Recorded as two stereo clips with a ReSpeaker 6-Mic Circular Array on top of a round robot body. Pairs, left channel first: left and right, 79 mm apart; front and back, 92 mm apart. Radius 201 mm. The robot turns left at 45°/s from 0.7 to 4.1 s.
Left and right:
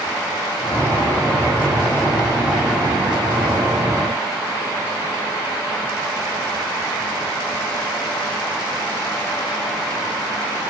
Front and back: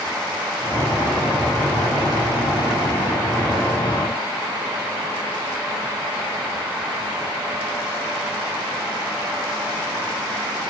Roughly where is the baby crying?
I don't hear a baby crying.